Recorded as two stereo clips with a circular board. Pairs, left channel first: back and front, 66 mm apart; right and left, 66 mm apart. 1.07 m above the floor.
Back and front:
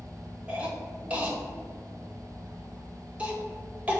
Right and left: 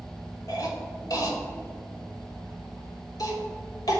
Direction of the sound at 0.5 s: 70° right.